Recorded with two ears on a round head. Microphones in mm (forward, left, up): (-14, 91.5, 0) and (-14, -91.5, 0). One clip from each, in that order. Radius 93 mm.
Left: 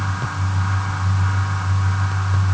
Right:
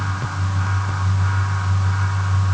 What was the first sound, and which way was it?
Only background noise.